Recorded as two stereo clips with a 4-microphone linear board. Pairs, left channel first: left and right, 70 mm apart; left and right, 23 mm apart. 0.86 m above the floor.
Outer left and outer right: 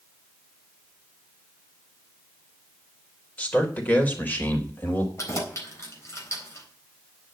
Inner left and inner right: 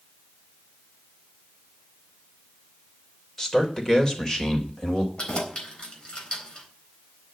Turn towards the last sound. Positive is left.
turn(degrees=45)  # may be behind; listen again after turning